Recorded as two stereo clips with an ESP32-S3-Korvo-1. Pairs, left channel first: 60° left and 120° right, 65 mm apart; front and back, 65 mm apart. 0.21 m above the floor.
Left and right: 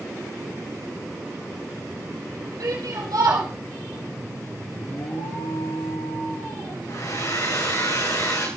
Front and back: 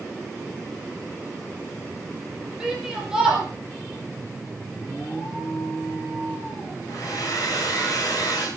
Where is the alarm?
60° left, 9 m.